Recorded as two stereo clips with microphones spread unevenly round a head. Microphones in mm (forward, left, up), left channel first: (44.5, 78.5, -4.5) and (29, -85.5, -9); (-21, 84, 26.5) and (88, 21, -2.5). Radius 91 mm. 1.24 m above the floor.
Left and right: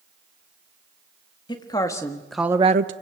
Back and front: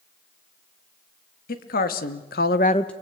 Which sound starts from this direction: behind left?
A woman speaking, at 1.5 s.